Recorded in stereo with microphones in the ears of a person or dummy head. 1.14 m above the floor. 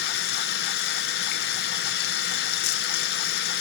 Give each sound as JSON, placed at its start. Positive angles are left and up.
{"t": 0.0, "sound": "running water", "side_deg": 60, "distance_m": 1.9}